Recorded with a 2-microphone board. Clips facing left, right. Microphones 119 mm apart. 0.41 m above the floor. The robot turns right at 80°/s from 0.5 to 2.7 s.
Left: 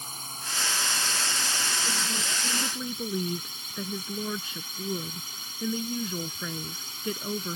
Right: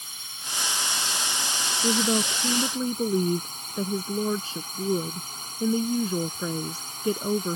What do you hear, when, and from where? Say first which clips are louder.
0.0 s a drone: left 4 dB; 135° left; by 7.6 s 45° right
1.8 s a woman speaking: right 10 dB; 100° right; by 7.6 s 30° right